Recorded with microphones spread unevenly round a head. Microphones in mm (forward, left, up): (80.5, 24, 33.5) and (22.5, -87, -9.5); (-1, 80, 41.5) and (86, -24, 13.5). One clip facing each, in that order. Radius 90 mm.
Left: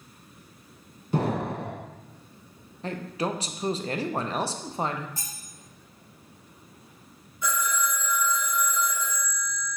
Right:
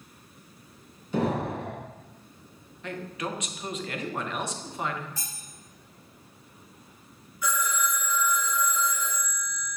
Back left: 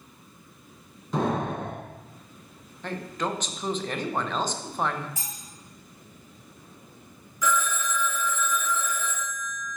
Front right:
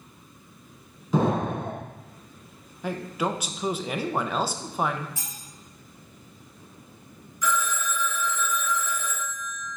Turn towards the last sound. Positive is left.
turn(degrees=135)